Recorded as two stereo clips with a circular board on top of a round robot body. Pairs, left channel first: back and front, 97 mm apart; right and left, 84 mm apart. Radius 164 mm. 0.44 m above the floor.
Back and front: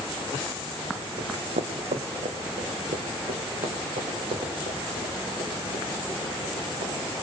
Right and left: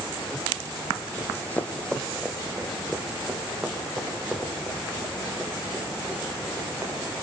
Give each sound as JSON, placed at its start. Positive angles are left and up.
{"t": 1.2, "sound": "running footsteps", "azimuth_deg": -35, "distance_m": 1.2}